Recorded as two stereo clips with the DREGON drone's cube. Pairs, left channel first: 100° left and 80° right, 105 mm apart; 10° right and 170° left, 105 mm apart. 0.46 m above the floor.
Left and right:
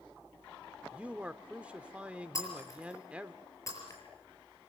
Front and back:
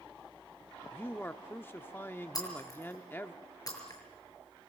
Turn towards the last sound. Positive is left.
turn(degrees=45)